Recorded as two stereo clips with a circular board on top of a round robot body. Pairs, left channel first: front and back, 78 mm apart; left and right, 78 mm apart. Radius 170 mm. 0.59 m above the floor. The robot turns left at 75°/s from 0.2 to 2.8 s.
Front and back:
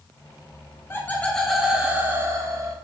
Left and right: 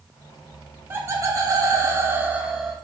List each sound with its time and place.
0.9 s laughter: 45° right, 0.8 m; by 2.8 s straight behind, 0.8 m